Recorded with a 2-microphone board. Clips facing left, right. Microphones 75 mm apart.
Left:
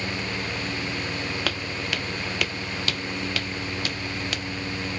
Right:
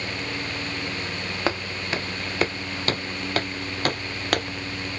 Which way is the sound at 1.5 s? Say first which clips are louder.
Right 3 dB; 25° right (ahead or behind).